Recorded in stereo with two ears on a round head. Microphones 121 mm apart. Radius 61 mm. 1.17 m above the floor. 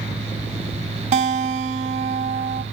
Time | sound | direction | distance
1.1 | a guitar | 55° right (ahead or behind) | 0.9 m